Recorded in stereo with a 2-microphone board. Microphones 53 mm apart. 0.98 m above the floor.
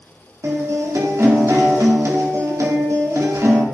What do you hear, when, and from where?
0.4 s a guitar: 70° right (ahead or behind), 2.5 m